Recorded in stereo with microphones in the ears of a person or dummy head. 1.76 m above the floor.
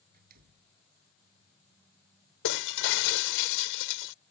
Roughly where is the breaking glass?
Left.